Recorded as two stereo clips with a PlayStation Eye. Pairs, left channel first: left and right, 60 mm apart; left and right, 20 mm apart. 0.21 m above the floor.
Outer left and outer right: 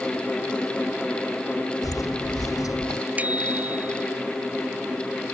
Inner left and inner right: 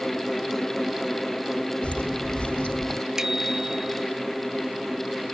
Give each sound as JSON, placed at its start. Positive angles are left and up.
{"t": 1.8, "sound": "footsteps", "side_deg": 85}
{"t": 3.2, "sound": "a bicycle bell", "side_deg": -25}